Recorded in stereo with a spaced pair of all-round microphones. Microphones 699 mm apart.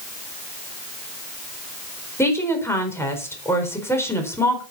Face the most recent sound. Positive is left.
turn(degrees=5)  # may be behind; listen again after turning